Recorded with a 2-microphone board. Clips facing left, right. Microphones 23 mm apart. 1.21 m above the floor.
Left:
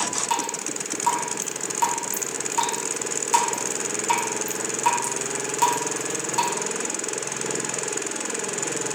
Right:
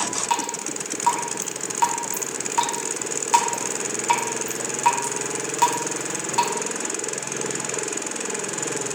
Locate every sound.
0.3 s dripping: 10° right (ahead or behind), 0.5 m